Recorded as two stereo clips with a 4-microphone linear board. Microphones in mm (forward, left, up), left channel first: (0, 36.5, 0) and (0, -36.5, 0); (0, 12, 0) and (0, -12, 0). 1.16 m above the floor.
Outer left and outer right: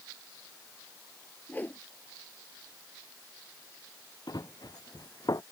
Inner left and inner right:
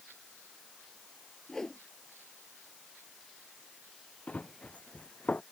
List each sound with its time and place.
1.5 s a whoosh: 25° left (ahead or behind)
4.3 s running footsteps: 65° left (ahead or behind); by 5.4 s 60° left (ahead or behind)